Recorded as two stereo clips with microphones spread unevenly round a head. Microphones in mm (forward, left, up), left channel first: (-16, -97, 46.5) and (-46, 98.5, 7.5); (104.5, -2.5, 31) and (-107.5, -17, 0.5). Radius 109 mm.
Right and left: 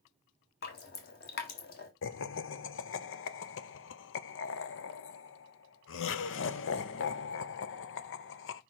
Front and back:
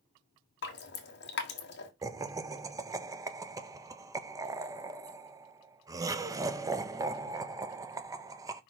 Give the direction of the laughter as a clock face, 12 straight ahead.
3 o'clock.